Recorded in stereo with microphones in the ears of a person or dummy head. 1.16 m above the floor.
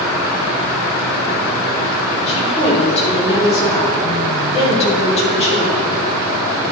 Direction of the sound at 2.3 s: 35° left (ahead or behind).